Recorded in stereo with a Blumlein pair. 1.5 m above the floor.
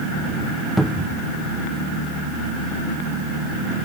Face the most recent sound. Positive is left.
turn(degrees=-5)